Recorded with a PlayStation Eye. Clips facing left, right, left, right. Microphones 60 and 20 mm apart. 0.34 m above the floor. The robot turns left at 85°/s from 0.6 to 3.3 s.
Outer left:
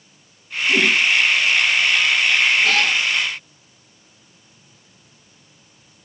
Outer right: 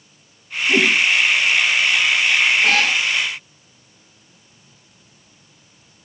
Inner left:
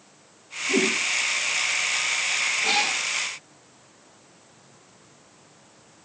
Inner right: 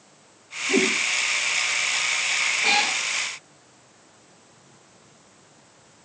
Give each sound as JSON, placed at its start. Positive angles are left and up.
{"t": 0.7, "sound": "a whoosh", "side_deg": -25, "distance_m": 5.5}
{"t": 2.6, "sound": "a cat meowing", "side_deg": -40, "distance_m": 9.0}